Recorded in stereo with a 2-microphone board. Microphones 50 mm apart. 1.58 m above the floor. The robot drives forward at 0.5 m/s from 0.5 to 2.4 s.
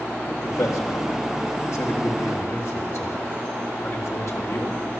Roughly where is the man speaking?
Left.